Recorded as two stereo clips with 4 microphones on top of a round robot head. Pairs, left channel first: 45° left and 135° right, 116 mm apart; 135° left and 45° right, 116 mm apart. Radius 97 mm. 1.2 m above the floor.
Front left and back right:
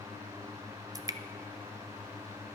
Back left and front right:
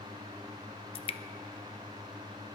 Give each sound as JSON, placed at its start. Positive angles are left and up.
{"t": 0.9, "sound": "dripping", "azimuth_deg": 170, "distance_m": 0.7}